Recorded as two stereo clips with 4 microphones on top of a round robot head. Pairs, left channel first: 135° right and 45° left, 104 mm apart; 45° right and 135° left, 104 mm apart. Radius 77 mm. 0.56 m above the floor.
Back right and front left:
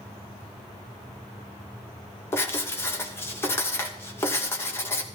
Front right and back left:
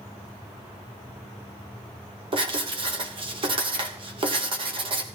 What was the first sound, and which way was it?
Writing, 160° left.